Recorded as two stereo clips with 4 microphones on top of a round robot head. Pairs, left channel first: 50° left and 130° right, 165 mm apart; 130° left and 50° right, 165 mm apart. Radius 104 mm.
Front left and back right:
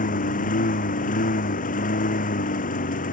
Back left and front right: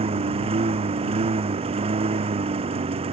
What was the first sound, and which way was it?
A lawn mower, 5° left.